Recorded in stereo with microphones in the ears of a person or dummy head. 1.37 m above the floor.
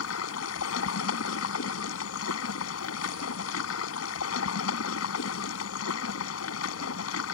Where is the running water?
80° left.